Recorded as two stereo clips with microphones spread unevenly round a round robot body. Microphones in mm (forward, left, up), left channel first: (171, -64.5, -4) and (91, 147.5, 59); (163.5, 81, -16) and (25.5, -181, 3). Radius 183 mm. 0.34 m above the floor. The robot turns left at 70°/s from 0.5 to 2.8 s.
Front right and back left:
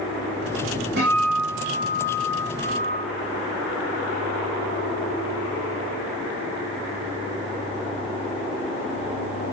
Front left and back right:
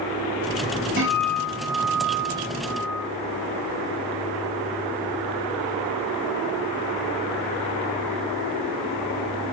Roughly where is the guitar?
Behind.